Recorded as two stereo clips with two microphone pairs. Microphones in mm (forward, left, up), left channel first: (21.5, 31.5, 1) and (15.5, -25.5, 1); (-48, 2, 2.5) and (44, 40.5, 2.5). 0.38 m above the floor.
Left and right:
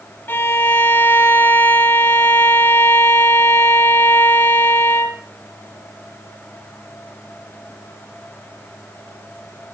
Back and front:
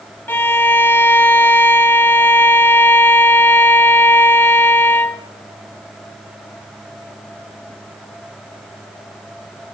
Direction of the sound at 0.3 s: 135° left.